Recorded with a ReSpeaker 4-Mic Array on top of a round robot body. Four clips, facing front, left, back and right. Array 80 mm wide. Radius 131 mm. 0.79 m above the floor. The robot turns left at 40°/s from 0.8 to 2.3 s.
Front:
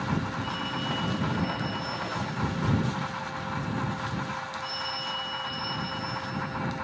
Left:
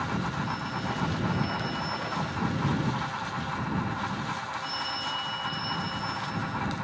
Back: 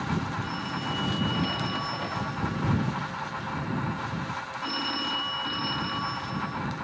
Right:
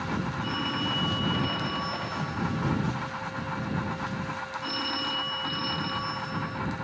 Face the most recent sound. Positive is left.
turn(degrees=-145)